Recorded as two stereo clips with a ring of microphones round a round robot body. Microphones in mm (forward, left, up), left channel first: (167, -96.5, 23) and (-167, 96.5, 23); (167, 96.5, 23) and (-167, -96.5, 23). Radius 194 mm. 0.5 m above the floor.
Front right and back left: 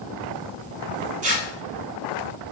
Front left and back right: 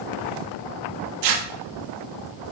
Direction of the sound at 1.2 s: 140° right.